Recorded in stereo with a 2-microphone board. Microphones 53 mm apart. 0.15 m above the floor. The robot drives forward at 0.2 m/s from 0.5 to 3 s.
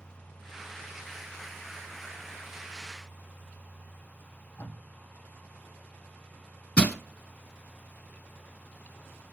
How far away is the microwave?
No microwave in this recording.